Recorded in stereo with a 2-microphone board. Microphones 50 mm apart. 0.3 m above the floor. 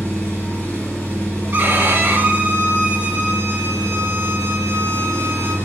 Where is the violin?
40° right (ahead or behind), 0.7 m.